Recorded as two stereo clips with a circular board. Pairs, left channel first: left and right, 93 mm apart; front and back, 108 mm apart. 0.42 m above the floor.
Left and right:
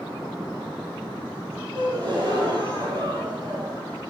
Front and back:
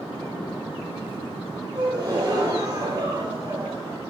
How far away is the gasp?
About 4.5 m.